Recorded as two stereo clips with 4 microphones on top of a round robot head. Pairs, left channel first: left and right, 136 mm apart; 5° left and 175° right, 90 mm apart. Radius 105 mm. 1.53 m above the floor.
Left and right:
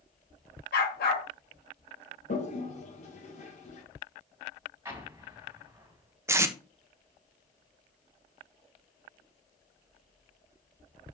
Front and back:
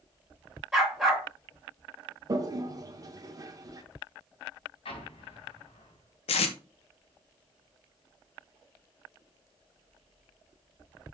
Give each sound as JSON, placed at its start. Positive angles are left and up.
{"t": 0.7, "sound": "a dog barking", "azimuth_deg": 100, "distance_m": 3.5}
{"t": 2.3, "sound": "a toilet flushing", "azimuth_deg": 135, "distance_m": 1.2}
{"t": 4.8, "sound": "an explosion", "azimuth_deg": -15, "distance_m": 3.0}
{"t": 6.3, "sound": "tape being pulled", "azimuth_deg": -20, "distance_m": 0.9}